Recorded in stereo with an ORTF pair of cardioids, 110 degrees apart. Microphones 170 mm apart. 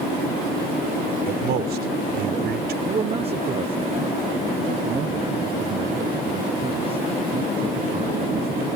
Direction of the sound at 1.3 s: 65° right.